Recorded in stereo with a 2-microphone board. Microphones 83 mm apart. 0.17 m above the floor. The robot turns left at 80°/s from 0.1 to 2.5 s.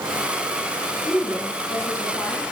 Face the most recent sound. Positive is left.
turn(degrees=-5)